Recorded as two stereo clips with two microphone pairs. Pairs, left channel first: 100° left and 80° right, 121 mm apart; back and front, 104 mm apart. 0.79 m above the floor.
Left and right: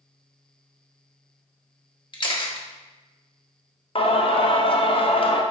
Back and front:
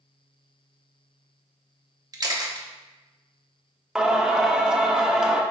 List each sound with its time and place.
2.1 s a camera shutter: 50° left, 1.1 m
4.0 s singing: 75° left, 0.7 m